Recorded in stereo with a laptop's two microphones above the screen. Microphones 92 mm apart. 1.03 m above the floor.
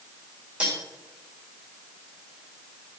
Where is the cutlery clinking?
10° right (ahead or behind), 2.5 m.